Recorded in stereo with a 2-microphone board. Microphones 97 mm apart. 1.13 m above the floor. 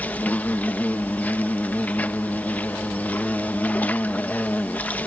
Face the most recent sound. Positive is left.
turn(degrees=15)  # may be behind; listen again after turning